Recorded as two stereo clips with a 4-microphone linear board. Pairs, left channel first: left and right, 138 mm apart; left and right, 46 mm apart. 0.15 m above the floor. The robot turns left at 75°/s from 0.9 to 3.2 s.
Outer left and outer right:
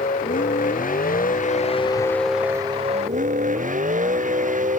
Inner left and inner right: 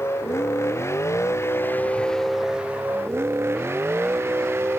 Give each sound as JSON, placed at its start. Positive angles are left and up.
{"t": 0.0, "sound": "a vehicle", "azimuth_deg": 105}